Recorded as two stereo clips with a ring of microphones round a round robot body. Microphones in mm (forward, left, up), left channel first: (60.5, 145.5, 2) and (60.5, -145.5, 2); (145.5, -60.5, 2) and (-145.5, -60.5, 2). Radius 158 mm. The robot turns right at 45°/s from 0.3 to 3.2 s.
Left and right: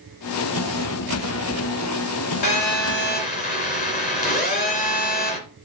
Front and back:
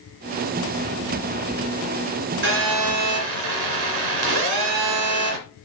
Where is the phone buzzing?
120° left, 2 m; by 5.4 s 155° left, 2 m.